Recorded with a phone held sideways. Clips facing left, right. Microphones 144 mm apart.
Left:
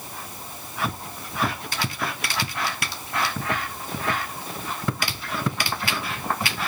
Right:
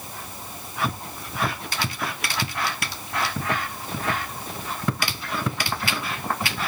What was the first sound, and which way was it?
Only background noise.